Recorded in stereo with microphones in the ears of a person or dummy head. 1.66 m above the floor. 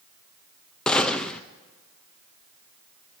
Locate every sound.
0.9 s a gunshot: 5° left (ahead or behind), 0.5 m